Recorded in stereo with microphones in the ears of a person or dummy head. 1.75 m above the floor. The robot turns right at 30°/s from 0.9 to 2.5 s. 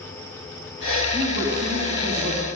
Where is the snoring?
I don't hear snoring.